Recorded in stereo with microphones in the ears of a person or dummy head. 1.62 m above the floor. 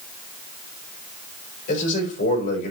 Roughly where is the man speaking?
Left.